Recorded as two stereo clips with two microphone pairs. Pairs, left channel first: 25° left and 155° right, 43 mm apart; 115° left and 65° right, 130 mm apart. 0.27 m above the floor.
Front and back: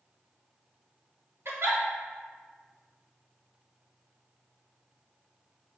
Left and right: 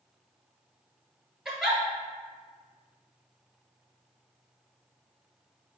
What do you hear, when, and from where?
1.4 s a giggle: 150° right, 1.1 m